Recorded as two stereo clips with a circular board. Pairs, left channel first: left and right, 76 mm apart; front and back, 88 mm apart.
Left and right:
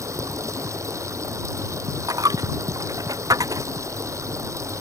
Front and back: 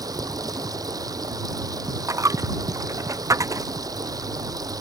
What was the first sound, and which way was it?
Running water, 135° right.